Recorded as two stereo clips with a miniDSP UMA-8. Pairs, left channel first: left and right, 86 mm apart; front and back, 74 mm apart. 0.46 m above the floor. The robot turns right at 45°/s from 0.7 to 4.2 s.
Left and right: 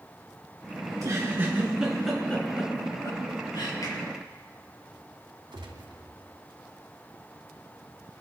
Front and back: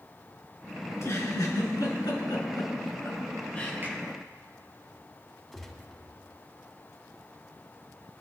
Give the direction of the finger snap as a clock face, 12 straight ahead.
8 o'clock.